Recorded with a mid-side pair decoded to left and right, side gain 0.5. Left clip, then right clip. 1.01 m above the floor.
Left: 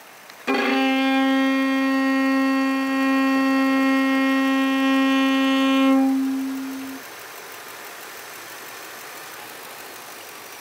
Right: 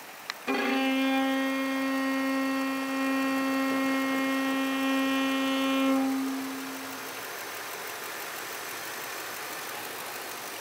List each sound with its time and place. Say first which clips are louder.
0.5 s a violin: left 7 dB; 45° left, 0.7 m